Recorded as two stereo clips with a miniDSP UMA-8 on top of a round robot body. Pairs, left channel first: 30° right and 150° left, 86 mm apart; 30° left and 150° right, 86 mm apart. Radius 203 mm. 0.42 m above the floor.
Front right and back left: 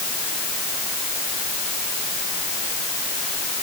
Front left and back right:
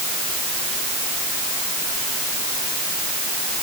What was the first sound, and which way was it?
Only background noise.